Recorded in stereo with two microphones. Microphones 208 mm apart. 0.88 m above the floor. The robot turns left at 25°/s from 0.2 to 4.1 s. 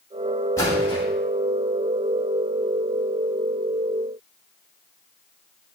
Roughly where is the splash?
Centre.